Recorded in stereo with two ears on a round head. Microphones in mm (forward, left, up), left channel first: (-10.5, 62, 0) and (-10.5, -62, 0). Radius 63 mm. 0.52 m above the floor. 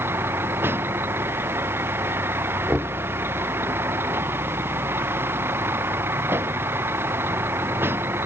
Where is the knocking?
10° right (ahead or behind).